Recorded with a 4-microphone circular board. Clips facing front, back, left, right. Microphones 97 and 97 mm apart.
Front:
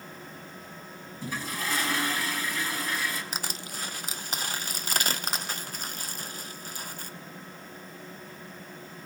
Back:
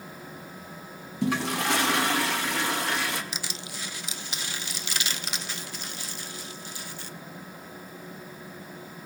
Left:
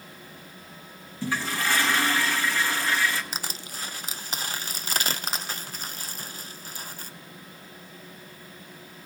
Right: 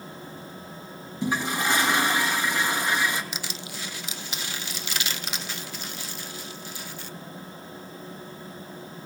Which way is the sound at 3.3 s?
45° left.